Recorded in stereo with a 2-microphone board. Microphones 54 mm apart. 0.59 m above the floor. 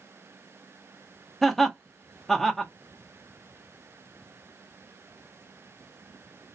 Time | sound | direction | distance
1.4 | laughter | 5° left (ahead or behind) | 0.7 m